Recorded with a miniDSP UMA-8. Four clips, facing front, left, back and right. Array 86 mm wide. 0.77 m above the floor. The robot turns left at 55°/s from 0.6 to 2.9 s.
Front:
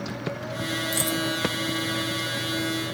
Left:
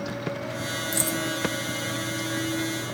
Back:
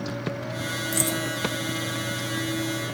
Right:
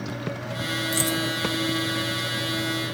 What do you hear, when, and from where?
0.9 s keys jangling: 90° right, 0.7 m; by 1.2 s 105° right, 0.7 m